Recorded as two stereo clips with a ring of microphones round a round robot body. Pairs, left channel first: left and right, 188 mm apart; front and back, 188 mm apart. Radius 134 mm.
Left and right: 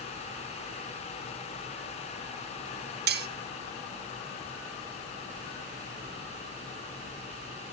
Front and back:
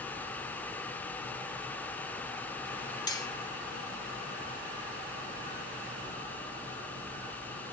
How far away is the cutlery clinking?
About 0.6 m.